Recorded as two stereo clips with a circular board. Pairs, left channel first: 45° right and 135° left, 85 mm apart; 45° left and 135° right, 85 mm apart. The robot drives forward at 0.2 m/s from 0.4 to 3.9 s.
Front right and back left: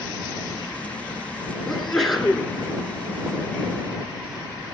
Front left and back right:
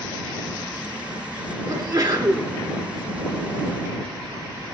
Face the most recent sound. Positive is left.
turn(degrees=-145)